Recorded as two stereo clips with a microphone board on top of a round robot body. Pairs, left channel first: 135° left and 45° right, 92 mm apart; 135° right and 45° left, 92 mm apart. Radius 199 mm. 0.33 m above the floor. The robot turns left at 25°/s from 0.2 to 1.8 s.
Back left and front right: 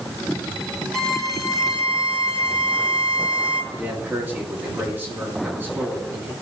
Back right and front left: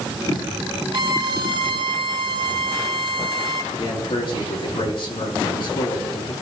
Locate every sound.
0.9 s a violin: 50° left, 3.5 m; by 3.6 s 30° left, 3.5 m
3.7 s a man speaking: 110° right, 5.5 m